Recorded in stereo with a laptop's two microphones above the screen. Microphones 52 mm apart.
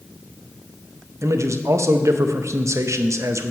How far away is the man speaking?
About 0.6 m.